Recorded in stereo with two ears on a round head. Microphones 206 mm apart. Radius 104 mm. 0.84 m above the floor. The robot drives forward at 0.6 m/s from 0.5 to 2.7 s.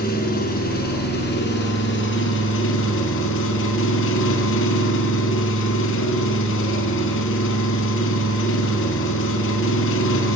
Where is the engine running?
40° left (ahead or behind), 4 m; by 10.4 s 55° left (ahead or behind), 3 m.